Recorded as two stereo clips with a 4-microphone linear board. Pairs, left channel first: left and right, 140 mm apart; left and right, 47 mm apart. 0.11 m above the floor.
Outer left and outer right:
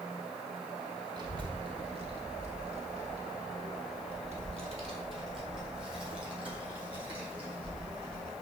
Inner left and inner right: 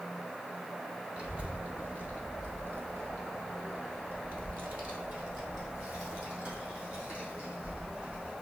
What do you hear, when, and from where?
1.2 s a child speaking: 30° right (ahead or behind), 1.4 m; by 8.3 s 35° right (ahead or behind), 4 m